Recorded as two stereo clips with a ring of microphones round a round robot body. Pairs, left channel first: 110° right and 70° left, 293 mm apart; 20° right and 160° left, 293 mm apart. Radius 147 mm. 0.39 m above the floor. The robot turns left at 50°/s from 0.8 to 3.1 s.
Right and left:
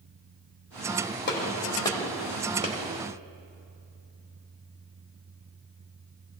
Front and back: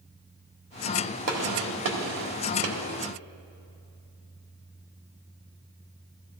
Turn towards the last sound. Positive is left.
turn(degrees=110)